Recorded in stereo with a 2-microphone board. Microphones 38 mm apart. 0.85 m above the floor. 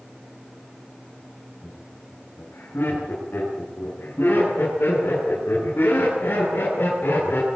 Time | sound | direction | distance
1.6 | laughter | 75° left (ahead or behind) | 9.5 m